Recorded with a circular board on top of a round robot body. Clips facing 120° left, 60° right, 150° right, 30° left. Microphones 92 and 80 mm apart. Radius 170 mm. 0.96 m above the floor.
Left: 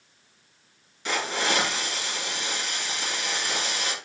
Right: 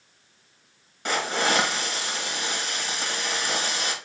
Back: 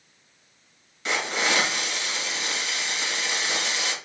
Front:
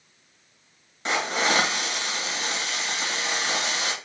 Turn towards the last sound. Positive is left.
turn(degrees=-20)